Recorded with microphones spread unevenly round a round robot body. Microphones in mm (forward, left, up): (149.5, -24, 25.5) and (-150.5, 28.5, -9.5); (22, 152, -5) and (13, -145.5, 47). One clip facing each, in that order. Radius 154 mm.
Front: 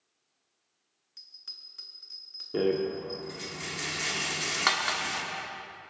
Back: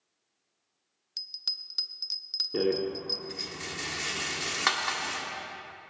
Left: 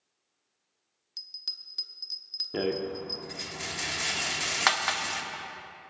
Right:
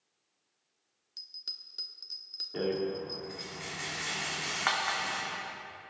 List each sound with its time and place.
1.2 s a bell: 160° left, 0.7 m
2.5 s a rattle: 85° left, 1.4 m